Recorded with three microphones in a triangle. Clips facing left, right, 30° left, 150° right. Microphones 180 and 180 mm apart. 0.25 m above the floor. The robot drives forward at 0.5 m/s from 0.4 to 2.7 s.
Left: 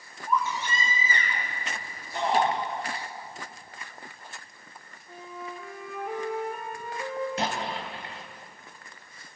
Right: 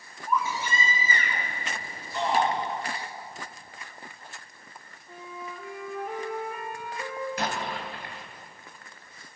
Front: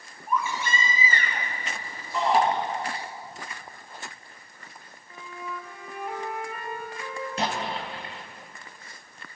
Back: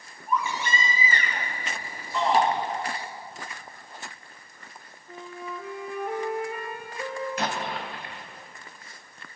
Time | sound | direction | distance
0.3 | a baby crying | 10° right | 4 m
2.1 | a shout | 105° left | 5 m
5.1 | a flute | straight behind | 3 m
7.4 | an explosion | 55° left | 1.6 m